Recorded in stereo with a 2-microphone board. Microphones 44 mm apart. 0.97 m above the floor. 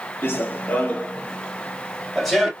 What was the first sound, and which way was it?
Running footsteps, 45° left (ahead or behind).